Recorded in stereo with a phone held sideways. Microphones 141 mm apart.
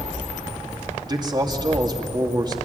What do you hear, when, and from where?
1.1 s a man speaking: 30° right (ahead or behind), 2.5 m